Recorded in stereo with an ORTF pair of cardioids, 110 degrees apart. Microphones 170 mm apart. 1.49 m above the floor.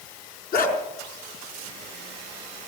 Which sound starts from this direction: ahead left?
A dog barking, at 0.5 s.